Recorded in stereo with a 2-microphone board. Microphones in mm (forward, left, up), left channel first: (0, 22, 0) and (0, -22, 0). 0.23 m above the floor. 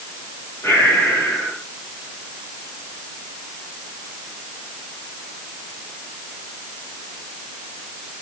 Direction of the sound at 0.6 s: 80° left.